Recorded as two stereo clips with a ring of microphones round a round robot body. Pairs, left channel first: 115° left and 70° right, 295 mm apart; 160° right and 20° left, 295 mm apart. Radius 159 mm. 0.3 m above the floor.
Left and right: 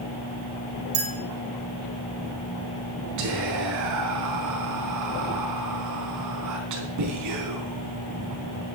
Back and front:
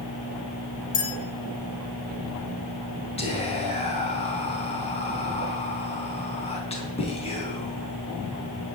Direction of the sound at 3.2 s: 90° right.